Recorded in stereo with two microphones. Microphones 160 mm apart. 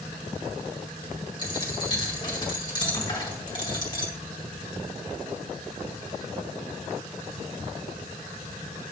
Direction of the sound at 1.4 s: 30° left (ahead or behind).